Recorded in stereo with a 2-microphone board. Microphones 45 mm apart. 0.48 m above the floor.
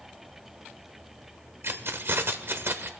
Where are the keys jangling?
60° right (ahead or behind), 0.9 m.